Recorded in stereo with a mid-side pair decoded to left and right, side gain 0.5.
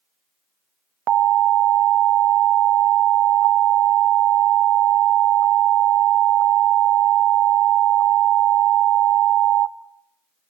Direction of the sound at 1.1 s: 65° right.